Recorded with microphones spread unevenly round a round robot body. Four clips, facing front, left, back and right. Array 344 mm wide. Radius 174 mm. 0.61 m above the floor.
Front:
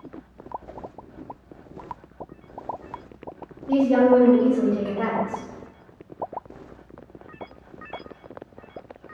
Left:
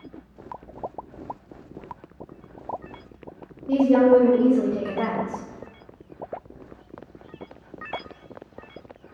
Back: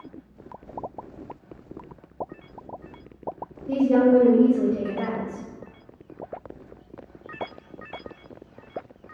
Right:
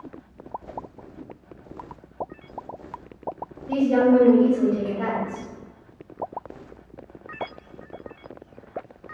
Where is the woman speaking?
175° left, 1.6 m; by 5.5 s 40° left, 0.8 m.